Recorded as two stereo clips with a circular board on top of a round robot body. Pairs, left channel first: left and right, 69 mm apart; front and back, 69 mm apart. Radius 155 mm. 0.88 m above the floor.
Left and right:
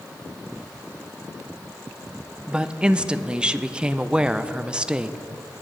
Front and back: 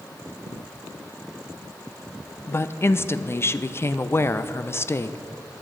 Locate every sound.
2.5 s a woman speaking: 20° right, 0.5 m